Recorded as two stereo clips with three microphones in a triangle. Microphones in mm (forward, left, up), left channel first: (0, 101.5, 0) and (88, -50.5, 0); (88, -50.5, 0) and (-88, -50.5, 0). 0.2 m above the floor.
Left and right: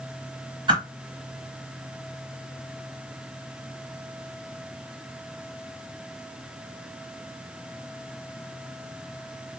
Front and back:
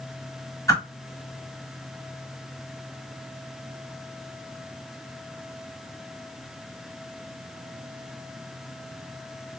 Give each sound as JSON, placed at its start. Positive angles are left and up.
{"t": 0.7, "sound": "a whoosh", "azimuth_deg": -45, "distance_m": 0.9}